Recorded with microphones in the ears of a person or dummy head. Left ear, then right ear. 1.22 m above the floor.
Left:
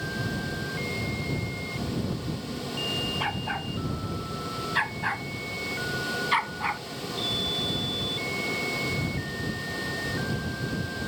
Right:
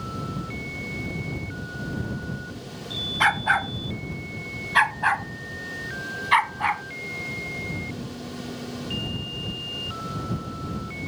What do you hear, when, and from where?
3.2 s a dog barking: 60° right (ahead or behind); by 6.8 s 30° right (ahead or behind)